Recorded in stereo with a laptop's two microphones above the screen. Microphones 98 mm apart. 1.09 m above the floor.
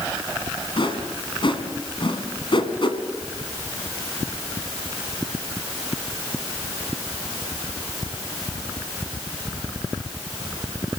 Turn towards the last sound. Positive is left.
turn(degrees=55)  # may be behind; listen again after turning